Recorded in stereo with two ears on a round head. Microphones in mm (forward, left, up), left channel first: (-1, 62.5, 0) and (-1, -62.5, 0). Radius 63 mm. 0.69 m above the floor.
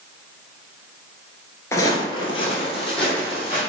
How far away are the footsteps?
About 0.6 m.